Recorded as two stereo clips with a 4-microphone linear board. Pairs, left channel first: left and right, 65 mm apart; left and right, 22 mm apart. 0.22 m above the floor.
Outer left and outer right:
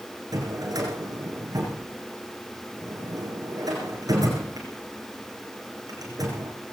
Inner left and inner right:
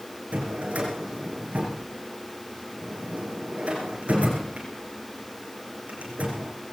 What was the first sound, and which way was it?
A drawer, 70° right (ahead or behind).